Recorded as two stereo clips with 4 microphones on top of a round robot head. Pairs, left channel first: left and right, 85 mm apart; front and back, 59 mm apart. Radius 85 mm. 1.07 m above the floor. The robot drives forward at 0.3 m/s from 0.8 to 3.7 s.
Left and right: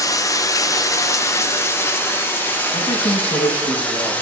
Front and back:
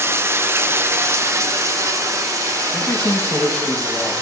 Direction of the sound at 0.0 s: 135° left.